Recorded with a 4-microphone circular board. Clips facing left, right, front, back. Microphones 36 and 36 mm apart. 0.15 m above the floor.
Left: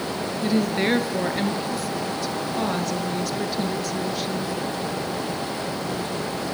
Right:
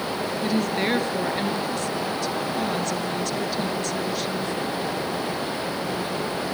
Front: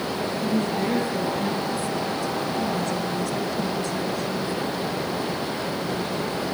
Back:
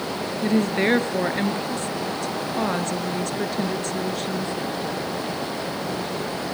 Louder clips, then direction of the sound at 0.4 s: Left 3 dB, back 5 dB; 170° left.